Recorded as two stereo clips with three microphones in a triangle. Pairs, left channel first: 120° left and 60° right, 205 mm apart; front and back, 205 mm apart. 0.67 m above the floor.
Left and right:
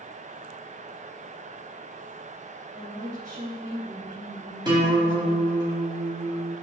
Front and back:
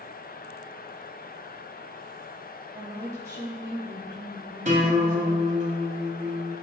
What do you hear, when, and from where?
2.7 s a woman speaking: 105° right, 3.5 m
4.7 s a guitar: 125° right, 3 m